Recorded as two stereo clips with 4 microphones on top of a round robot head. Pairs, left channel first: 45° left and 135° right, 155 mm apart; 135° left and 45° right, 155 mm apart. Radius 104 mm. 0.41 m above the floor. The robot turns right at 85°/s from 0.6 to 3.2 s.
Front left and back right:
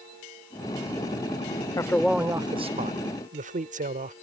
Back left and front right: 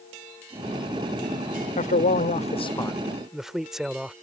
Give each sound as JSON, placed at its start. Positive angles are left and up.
{"t": 1.8, "sound": "a man speaking", "azimuth_deg": 105}